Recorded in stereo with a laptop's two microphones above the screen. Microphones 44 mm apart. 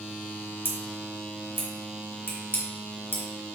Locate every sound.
0.7 s scissors: 50° left (ahead or behind), 2 m